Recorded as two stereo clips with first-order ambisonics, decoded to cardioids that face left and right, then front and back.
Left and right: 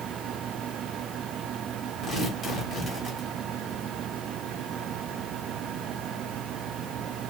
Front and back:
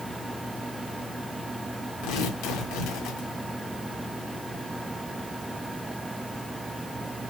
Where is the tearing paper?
25° left, 1.8 m.